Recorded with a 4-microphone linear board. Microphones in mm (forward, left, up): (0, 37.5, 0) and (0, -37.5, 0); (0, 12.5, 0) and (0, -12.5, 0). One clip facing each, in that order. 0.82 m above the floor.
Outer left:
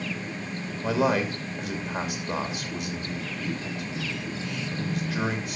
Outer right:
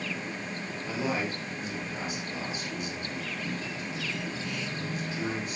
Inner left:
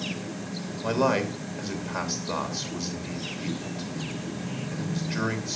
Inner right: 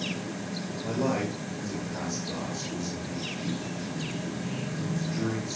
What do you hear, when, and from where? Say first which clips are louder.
0.8 s a man speaking: outer left 8 dB, inner left 5 dB; 80° left, 3 m